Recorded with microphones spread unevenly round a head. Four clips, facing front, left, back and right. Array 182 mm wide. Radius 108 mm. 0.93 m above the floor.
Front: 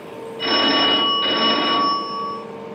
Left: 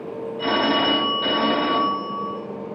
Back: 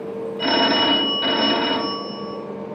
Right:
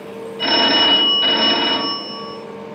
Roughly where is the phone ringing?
Behind right.